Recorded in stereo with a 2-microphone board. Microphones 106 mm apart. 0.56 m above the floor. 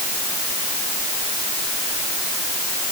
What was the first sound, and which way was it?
Only background noise.